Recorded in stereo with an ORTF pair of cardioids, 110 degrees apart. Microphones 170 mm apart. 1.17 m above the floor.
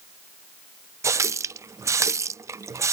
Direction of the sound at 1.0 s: 20° right.